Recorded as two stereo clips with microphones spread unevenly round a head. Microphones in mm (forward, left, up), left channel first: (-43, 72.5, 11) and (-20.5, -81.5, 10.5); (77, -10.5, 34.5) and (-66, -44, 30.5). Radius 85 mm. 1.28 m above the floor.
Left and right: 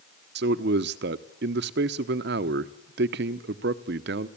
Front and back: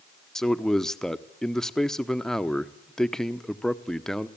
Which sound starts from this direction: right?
A man speaking, at 0.3 s.